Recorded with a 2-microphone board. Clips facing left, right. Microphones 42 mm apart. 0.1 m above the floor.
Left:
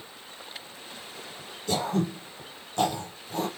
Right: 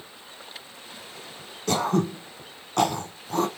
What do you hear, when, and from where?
1.7 s throat clearing: 65° right (ahead or behind), 1.5 m